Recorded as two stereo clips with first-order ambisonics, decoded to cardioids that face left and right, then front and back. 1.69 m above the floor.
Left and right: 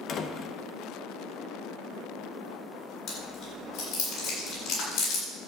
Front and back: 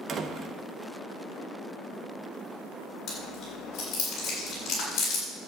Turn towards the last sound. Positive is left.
turn(degrees=50)